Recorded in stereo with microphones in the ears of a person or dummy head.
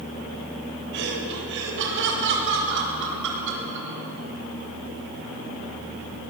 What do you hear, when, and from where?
0.9 s laughter: 65° right (ahead or behind), 7 m